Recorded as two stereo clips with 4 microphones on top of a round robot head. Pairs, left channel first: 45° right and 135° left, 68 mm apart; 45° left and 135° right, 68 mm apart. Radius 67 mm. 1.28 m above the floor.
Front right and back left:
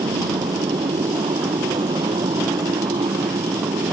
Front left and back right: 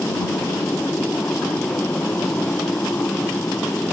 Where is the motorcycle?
115° left.